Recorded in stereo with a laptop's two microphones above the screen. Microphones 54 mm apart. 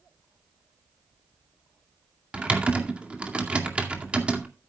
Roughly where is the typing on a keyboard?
Right.